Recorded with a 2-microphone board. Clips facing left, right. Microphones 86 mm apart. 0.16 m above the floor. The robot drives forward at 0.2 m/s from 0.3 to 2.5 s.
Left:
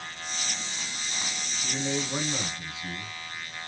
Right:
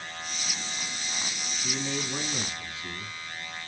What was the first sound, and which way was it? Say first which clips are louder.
A man speaking: left 2 dB; 20° left (ahead or behind).